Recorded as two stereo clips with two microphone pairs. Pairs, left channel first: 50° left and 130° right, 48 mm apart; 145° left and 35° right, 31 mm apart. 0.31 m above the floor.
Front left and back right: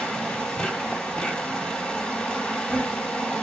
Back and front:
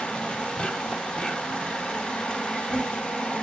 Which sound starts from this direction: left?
An insect, at 0.0 s.